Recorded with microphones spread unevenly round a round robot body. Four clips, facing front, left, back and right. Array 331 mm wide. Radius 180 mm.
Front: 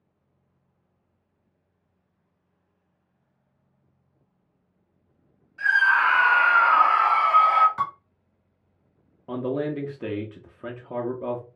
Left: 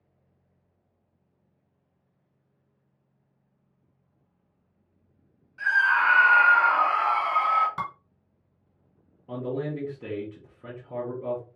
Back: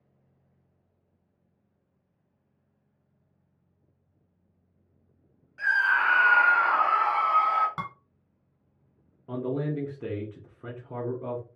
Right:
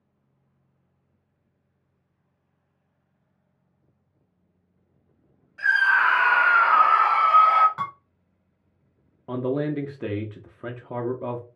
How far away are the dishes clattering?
About 1.5 m.